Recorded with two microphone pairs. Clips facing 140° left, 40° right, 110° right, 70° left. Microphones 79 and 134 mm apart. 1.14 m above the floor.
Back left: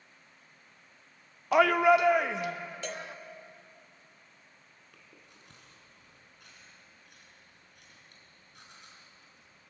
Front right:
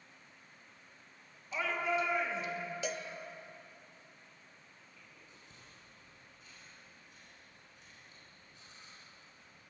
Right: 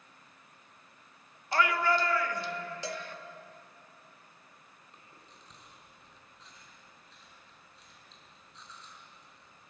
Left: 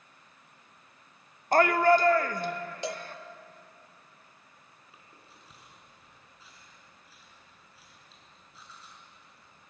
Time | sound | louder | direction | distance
1.5 | a shout | back left 13 dB, left 7 dB | 120° left | 0.5 m
2.8 | a cowbell | back left 1 dB, left 6 dB | 35° left | 0.8 m
4.9 | chewing | back left 1 dB, left 1 dB | 155° left | 4 m